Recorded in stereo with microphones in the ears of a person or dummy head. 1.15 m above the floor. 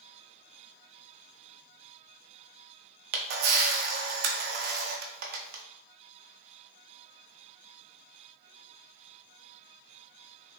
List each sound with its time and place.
3.1 s a camera shutter: 45° right (ahead or behind), 0.5 m